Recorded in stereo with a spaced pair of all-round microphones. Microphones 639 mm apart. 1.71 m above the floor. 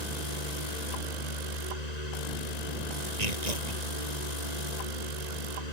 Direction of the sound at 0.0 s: 85° left.